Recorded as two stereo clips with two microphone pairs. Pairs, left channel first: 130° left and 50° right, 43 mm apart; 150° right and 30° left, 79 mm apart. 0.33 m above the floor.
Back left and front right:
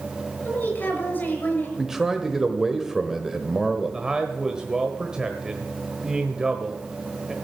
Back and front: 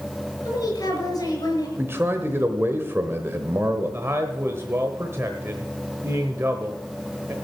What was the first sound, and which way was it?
A woman speaking, 170° left.